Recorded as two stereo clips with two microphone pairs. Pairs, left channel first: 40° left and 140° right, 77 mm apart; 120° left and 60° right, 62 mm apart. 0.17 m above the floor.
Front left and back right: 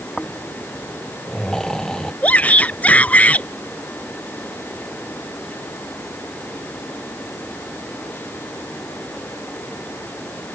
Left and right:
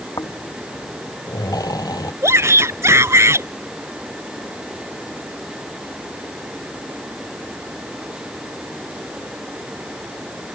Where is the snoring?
125° left.